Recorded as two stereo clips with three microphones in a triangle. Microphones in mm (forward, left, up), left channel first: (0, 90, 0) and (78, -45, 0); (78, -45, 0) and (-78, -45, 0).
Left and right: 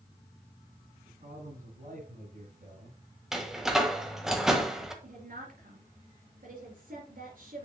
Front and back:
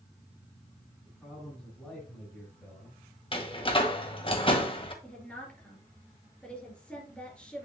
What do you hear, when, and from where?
1.1 s a man speaking: 85° right, 5 m; by 3.0 s 75° right, 3.5 m
3.3 s a door slam: 25° left, 1.2 m
5.0 s a woman speaking: 85° right, 4 m